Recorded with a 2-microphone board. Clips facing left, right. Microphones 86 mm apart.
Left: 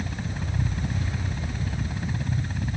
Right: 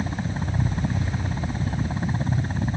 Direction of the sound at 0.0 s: 30° right (ahead or behind).